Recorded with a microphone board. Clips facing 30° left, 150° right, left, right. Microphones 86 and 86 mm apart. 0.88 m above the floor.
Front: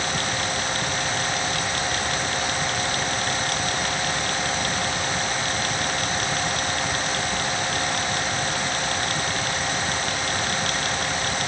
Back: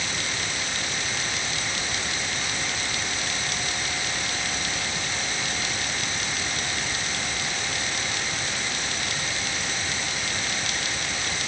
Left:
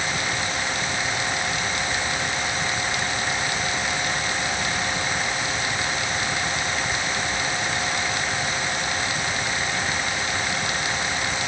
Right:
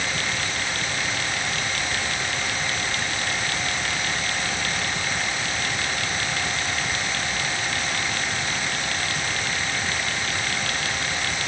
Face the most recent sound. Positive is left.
No sound to turn to.